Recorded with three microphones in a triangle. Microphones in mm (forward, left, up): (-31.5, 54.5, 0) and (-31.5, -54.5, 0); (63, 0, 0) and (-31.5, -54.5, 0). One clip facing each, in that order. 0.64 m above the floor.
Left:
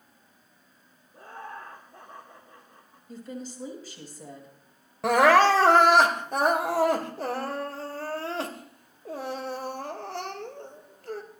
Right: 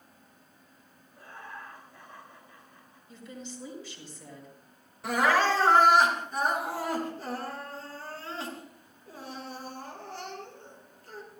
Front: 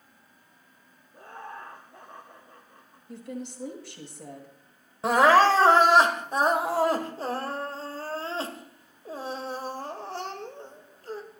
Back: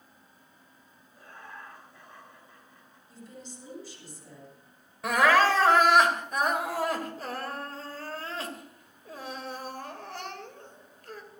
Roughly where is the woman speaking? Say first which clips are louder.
Left 5 dB, front 9 dB; ahead left.